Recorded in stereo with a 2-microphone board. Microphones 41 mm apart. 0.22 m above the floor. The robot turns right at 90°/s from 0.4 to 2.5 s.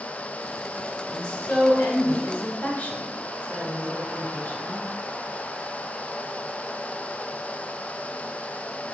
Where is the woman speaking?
10° left (ahead or behind), 2.5 m; by 4.8 s 40° left (ahead or behind), 2.5 m.